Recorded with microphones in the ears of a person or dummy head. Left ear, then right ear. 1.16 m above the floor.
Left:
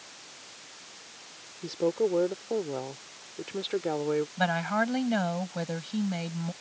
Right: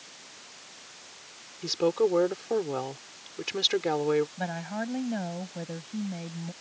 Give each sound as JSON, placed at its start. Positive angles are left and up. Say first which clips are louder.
{"t": 1.6, "sound": "a woman speaking", "louder": "right 2 dB", "side_deg": -55}
{"t": 4.4, "sound": "a woman speaking", "louder": "left 7 dB", "side_deg": 50}